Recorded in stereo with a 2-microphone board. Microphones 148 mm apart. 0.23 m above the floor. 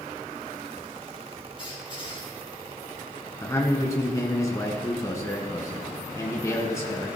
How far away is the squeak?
About 3.5 m.